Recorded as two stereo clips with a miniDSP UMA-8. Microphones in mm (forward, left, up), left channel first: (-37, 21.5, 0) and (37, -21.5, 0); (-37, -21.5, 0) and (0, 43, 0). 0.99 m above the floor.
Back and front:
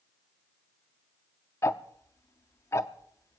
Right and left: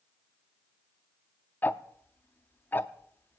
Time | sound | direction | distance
1.6 | ticking | 170° right | 0.6 m